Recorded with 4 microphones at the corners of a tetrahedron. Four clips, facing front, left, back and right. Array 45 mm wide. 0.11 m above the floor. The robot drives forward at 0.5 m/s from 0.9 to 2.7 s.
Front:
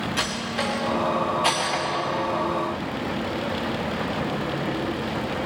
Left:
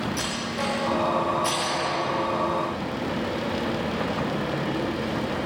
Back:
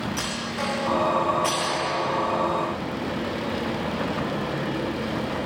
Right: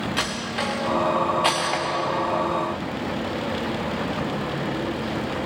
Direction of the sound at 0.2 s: 80° right.